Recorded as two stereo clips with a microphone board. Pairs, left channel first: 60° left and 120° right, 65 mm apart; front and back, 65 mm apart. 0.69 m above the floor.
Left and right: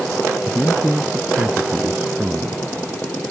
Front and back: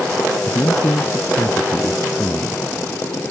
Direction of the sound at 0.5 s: 50° right.